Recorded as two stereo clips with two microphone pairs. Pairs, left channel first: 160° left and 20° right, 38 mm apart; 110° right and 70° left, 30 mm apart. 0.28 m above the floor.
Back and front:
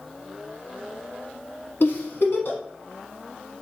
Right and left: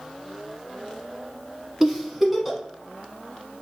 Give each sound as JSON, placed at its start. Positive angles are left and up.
{"t": 1.8, "sound": "a giggle", "azimuth_deg": 160, "distance_m": 0.7}